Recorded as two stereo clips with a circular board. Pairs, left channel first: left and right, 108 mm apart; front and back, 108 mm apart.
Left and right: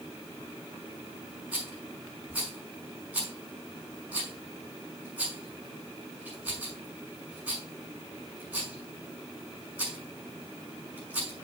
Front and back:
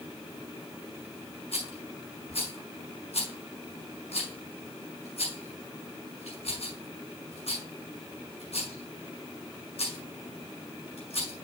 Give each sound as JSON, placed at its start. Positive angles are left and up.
{"t": 1.5, "sound": "a rattle", "azimuth_deg": -15, "distance_m": 5.0}